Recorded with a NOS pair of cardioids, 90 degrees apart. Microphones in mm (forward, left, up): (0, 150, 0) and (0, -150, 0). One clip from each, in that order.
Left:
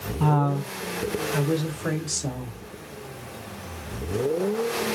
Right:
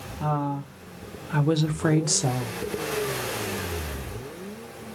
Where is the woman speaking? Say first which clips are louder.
Left 3 dB; 20° left, 0.9 m; by 2.6 s 75° right, 1.2 m.